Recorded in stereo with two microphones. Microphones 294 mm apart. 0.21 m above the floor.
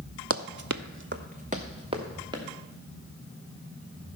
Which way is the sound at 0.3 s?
50° right (ahead or behind).